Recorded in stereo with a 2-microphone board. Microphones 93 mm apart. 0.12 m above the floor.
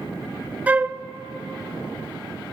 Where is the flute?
20° right (ahead or behind), 0.6 m.